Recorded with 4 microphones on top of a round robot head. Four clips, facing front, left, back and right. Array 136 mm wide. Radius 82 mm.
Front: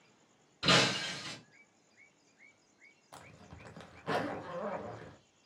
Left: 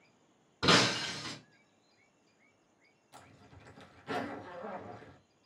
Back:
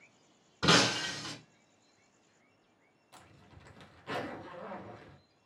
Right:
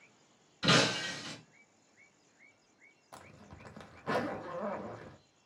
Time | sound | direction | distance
0.6 | breaking glass | 130° left | 1.1 m
3.1 | a zipper | 55° right | 0.7 m